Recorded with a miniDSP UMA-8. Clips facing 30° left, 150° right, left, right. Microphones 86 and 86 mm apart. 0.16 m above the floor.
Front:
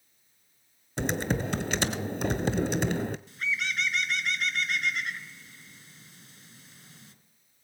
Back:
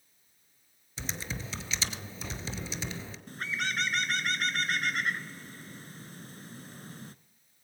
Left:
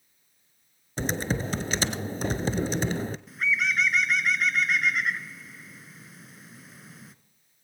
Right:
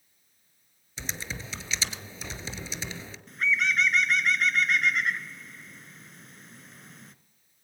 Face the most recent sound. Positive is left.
turn(degrees=175)